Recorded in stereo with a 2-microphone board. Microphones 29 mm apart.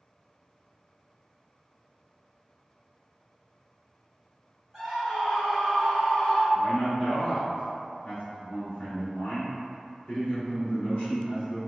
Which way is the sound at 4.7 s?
5° right (ahead or behind).